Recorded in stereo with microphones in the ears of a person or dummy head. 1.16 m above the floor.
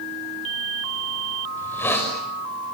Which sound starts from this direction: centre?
A hiss, at 1.6 s.